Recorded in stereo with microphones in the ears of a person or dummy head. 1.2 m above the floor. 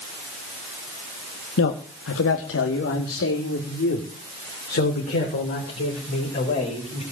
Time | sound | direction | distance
1.6 | a man speaking | 75° left (ahead or behind) | 2.5 m